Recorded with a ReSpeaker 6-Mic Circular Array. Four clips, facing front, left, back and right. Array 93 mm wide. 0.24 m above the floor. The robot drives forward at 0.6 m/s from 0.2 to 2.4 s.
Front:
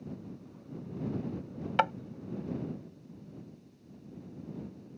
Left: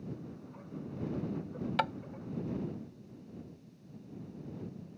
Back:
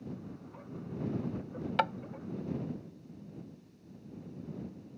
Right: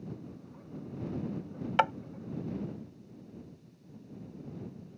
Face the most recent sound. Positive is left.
turn(degrees=-120)